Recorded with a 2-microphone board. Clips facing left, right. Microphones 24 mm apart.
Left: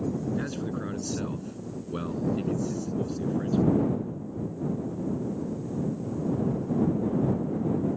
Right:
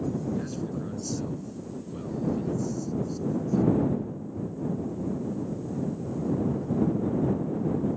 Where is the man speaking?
40° left (ahead or behind); by 3.8 s 80° left.